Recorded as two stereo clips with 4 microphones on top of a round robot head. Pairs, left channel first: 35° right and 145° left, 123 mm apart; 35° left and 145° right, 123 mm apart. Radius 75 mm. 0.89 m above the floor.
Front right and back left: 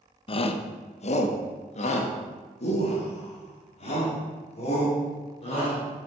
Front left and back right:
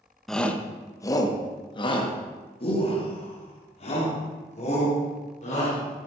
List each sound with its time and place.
0.3 s a shout: 50° right, 0.8 m; by 6.1 s 5° left, 3.5 m